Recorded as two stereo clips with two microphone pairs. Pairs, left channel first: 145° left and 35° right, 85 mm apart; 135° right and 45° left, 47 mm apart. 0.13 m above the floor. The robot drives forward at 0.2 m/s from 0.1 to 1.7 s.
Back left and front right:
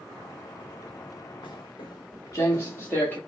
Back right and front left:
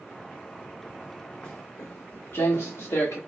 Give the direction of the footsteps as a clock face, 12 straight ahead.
7 o'clock.